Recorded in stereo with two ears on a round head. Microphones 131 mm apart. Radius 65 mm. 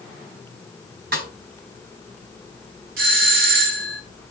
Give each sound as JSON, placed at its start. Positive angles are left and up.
{"t": 1.1, "sound": "a snare drum", "side_deg": -75, "distance_m": 4.0}
{"t": 3.0, "sound": "a doorbell", "side_deg": -70, "distance_m": 3.0}